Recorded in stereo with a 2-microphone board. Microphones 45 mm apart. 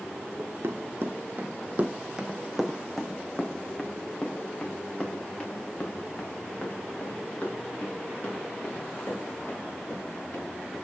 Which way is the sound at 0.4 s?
75° right (ahead or behind).